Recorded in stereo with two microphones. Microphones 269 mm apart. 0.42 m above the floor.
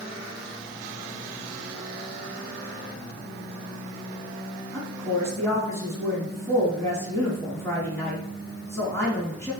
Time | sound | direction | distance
4.7 | a woman speaking | 10° left (ahead or behind) | 3.5 m